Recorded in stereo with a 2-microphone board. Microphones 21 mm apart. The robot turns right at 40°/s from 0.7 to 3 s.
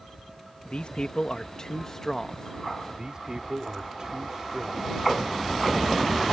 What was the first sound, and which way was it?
A man speaking, 105° left.